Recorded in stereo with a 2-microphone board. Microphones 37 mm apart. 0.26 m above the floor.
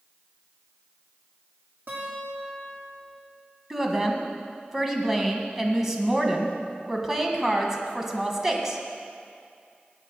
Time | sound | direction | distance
1.9 | a guitar | 65° right (ahead or behind) | 5.5 m
3.7 | a woman speaking | 15° right (ahead or behind) | 1.9 m